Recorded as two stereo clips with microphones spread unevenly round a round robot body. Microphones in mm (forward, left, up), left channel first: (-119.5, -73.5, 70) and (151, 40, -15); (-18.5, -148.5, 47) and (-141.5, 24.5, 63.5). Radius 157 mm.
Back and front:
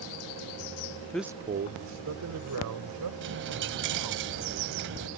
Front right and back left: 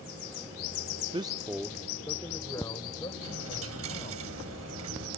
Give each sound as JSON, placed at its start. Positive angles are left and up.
{"t": 1.1, "sound": "a man speaking", "azimuth_deg": 90}
{"t": 3.2, "sound": "a dropped coin", "azimuth_deg": 80}